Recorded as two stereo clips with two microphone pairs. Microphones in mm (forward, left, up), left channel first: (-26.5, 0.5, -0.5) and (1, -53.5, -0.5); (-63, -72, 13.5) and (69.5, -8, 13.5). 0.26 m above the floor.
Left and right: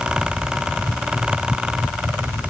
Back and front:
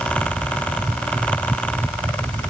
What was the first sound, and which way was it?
Only background noise.